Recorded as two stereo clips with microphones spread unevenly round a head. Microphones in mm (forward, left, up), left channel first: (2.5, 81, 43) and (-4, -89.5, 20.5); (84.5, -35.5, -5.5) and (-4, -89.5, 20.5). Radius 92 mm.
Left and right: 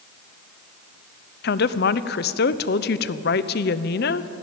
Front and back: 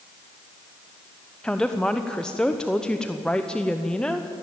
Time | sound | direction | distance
1.4 | a woman speaking | 120° left | 0.7 m